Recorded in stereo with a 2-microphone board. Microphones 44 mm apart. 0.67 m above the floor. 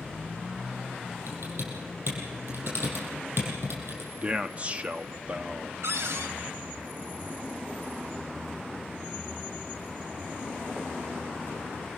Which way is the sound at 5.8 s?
85° right.